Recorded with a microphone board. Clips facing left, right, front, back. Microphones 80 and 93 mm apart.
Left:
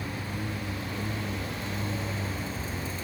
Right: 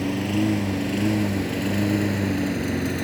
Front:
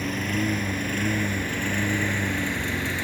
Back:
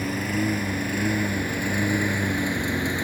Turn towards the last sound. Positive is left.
turn(degrees=-110)